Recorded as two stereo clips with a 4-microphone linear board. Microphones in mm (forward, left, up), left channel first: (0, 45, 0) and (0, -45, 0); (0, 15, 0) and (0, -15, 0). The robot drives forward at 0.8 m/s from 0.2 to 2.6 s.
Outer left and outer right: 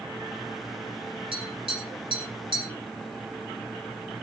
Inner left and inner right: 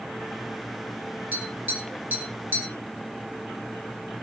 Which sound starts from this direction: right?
Tapping, at 1.3 s.